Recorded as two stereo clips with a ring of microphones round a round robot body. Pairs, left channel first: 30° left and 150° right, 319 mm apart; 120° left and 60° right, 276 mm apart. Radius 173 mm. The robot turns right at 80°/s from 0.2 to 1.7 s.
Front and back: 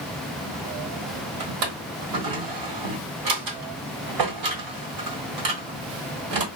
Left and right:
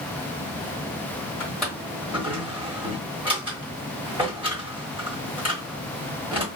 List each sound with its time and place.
1.4 s a drawer: 170° right, 1.3 m; by 6.5 s 145° right, 1.3 m